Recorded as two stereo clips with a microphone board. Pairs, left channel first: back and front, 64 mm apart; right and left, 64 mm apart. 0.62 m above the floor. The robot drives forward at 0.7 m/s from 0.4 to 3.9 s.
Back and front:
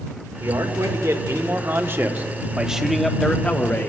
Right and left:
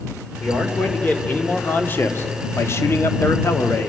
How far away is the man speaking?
About 2 m.